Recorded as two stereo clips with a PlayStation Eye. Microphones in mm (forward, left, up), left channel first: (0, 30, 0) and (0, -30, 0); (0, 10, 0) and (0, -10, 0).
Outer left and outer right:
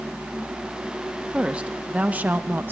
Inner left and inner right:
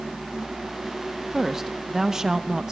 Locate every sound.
1.3 s a woman speaking: 20° right (ahead or behind), 1.4 m; by 2.7 s 35° right (ahead or behind), 0.7 m